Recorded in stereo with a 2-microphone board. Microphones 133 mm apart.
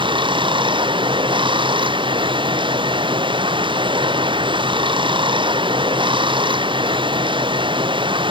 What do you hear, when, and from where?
0.0 s running water: 40° right (ahead or behind)